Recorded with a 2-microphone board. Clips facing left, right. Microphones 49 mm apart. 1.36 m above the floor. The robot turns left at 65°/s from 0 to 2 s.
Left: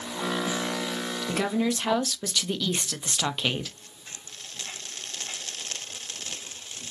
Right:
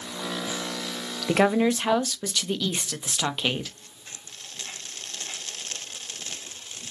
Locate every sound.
1.3 s a woman speaking: 125° right, 0.5 m; by 3.7 s 175° right, 0.5 m